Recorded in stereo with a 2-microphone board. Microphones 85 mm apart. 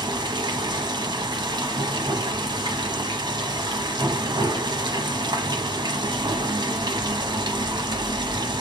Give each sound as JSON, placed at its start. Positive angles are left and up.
{"t": 0.0, "sound": "running water", "side_deg": -60, "distance_m": 1.0}